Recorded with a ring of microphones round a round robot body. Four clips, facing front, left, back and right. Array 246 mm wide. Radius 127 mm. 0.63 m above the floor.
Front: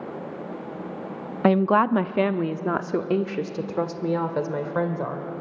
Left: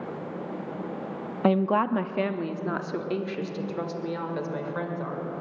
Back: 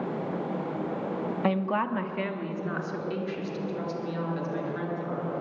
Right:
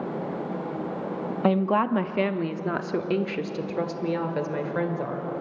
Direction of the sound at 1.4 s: 5° left.